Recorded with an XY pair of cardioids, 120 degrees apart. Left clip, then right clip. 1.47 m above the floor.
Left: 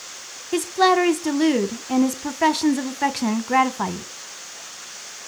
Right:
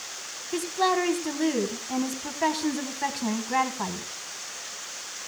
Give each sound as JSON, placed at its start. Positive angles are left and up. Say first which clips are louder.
{"t": 0.5, "sound": "a woman speaking", "louder": "left 7 dB", "azimuth_deg": 45, "distance_m": 1.3}